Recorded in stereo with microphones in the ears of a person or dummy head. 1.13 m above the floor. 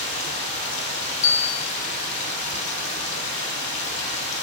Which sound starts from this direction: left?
Running water, at 0.0 s.